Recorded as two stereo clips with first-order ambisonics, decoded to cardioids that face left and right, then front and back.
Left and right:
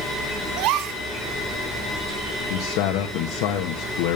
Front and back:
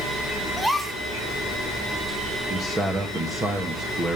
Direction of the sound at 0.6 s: 95° right.